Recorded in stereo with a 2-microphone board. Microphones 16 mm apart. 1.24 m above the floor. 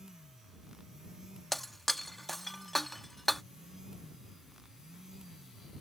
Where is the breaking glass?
15° left (ahead or behind).